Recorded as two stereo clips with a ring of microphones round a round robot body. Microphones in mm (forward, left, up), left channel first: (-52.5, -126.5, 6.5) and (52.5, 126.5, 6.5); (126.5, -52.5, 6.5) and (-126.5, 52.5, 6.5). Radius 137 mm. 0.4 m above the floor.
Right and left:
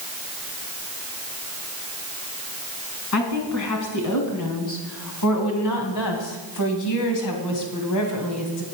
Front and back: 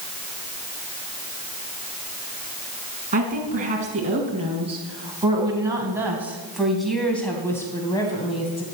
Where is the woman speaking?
140° right, 4.5 m; by 8.7 s 90° right, 3 m.